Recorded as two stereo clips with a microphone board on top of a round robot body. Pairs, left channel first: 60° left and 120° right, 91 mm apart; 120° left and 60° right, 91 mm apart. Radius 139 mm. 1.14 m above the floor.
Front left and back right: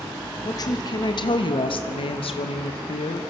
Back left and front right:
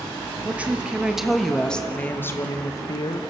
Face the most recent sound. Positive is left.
turn(degrees=80)